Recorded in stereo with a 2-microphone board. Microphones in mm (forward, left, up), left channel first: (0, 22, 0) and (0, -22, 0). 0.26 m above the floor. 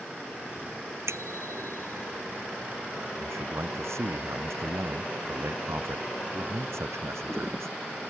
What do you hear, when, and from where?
1.1 s a bicycle bell: 80° right
3.2 s a man speaking: 80° right